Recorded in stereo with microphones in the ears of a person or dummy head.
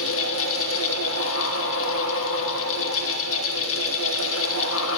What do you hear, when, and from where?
0.0 s a fan: 70° left (ahead or behind), 1.2 m